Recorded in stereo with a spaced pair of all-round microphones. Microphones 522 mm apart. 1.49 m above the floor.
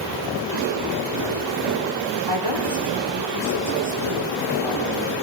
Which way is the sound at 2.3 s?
70° right (ahead or behind).